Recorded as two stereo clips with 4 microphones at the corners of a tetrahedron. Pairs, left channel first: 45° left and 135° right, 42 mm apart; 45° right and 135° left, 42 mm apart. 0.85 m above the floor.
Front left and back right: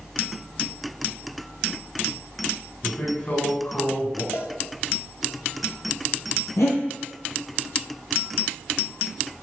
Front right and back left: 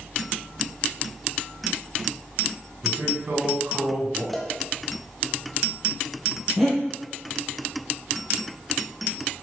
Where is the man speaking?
100° left, 3.5 m.